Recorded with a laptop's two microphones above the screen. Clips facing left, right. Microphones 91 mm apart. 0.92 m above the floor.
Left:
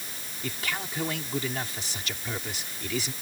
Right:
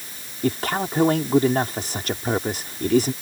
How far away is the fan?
I don't hear a fan.